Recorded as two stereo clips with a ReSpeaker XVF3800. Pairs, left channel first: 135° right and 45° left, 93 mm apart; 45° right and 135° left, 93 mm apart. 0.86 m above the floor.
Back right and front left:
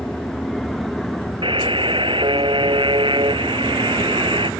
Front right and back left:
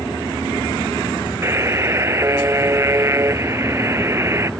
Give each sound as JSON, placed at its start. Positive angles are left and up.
{"t": 1.4, "sound": "a buzzer", "azimuth_deg": 75}